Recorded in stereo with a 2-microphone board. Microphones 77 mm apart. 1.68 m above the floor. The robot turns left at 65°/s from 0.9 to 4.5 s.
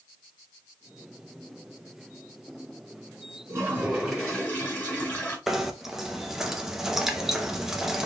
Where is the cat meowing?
No cat meowing in this recording.